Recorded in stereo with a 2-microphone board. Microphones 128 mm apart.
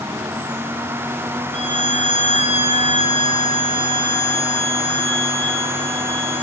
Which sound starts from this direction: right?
A violin, at 1.5 s.